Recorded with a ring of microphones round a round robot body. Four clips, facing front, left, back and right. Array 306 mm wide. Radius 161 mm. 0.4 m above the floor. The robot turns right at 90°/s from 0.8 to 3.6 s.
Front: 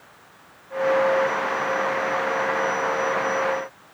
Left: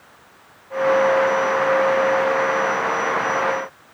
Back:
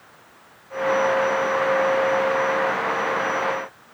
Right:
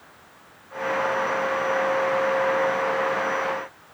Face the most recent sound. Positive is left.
No sound to turn to.